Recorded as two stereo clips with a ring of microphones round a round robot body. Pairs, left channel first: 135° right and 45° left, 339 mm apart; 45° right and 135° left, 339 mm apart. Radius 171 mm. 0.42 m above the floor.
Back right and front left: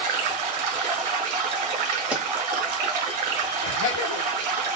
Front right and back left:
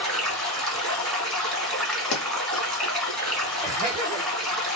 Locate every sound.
0.0 s running water: 45° left, 1.4 m
2.1 s a pop: 40° right, 0.8 m
3.6 s laughter: 155° right, 2 m